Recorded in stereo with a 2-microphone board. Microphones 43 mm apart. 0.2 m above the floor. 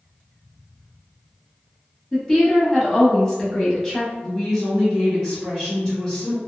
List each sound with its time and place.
2.1 s a woman speaking: 10° left (ahead or behind), 1.0 m
4.2 s a woman speaking: 15° left (ahead or behind), 1.6 m